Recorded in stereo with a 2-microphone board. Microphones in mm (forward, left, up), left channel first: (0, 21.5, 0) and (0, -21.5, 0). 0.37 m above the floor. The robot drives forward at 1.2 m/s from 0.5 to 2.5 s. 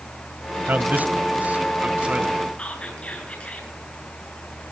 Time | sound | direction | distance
0.7 | a man speaking | 50° right (ahead or behind) | 1.7 m
2.6 | whispering | 25° left (ahead or behind) | 6.5 m